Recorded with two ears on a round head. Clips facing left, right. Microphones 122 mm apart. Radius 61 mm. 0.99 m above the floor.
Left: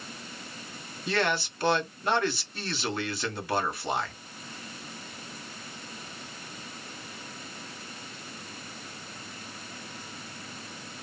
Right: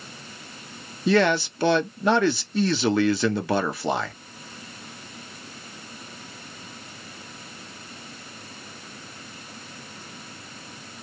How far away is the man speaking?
About 1.0 m.